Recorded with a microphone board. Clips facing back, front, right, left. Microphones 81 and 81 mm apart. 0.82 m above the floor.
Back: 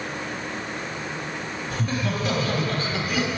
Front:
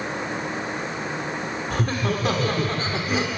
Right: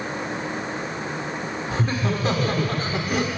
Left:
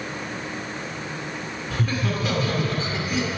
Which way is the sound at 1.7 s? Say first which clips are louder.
Front 2 dB, right 1 dB; 25° right.